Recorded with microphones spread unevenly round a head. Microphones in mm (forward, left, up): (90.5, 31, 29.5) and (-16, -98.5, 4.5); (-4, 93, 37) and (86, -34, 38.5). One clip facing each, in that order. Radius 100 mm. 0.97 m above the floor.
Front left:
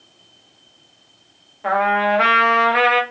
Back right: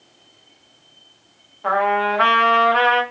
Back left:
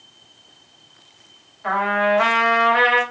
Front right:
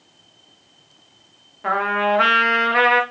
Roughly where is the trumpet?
Ahead right.